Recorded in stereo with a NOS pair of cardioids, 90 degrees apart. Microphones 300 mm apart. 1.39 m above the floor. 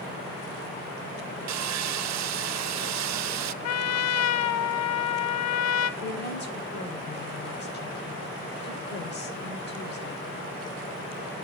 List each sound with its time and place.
1.5 s sawing: 65° right, 0.7 m
3.6 s a trumpet: 60° left, 1.0 m
6.0 s a woman speaking: 35° left, 6 m